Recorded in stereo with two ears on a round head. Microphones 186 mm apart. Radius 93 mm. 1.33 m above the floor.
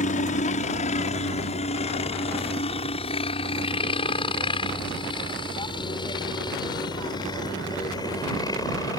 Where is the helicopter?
35° left (ahead or behind); by 9.0 s 20° left (ahead or behind).